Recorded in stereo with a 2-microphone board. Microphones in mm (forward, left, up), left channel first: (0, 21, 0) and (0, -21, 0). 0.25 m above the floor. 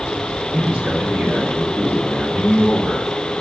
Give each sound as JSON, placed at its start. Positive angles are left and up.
{"t": 0.5, "sound": "a man speaking", "side_deg": -20, "distance_m": 1.8}